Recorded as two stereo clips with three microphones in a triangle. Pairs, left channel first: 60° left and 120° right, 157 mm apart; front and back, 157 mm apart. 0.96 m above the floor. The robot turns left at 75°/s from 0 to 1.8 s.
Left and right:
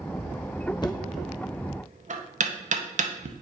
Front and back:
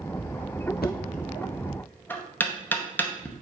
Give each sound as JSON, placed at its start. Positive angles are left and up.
{"t": 0.8, "sound": "knocking", "azimuth_deg": -5, "distance_m": 0.5}